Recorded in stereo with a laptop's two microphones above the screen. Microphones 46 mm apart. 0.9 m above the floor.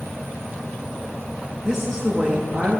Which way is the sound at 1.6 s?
10° right (ahead or behind).